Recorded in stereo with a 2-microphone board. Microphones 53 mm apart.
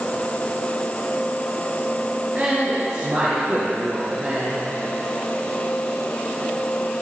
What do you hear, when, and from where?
2.4 s a woman speaking: 20° right (ahead or behind), 3 m